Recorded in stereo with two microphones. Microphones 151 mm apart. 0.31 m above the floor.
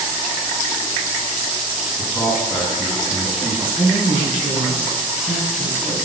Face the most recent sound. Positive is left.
turn(degrees=-5)  # may be behind; listen again after turning